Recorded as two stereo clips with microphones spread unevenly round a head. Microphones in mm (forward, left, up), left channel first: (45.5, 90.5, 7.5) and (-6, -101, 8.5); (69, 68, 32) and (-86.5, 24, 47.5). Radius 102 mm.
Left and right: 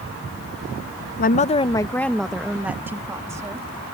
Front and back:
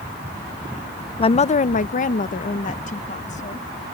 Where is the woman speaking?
55° left; by 3.7 s 30° right.